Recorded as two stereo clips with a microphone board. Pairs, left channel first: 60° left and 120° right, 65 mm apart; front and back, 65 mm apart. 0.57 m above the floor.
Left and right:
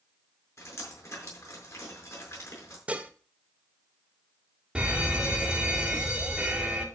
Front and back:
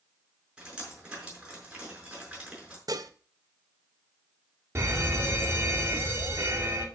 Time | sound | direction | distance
0.6 | dripping | 105° left | 5.5 m
2.9 | dishes clattering | 170° left | 1.0 m
4.8 | a fire alarm | 175° left | 2 m